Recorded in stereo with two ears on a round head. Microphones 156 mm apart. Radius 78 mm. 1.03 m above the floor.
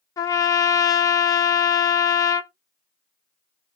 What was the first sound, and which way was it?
A trumpet, 20° left (ahead or behind).